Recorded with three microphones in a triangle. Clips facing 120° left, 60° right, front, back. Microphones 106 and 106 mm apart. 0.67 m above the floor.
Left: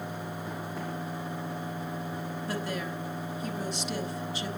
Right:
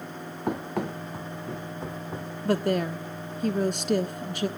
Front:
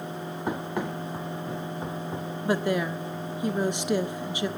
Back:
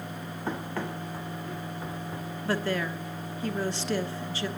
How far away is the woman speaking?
About 1.2 m.